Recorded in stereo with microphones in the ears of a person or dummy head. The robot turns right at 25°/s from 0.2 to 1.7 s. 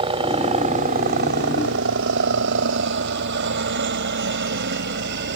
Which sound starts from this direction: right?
A helicopter, at 0.0 s.